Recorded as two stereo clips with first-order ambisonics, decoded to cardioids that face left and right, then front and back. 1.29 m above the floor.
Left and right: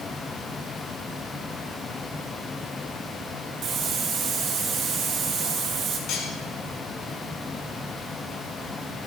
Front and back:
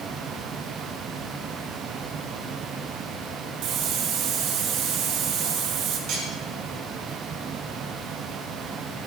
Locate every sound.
3.6 s a hiss: 145° right, 2 m
6.1 s cutlery clinking: 135° left, 7.5 m